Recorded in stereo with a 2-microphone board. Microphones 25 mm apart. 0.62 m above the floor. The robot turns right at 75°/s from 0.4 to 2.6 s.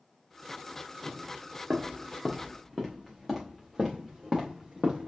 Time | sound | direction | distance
1.1 | footsteps | 80° right | 3.5 m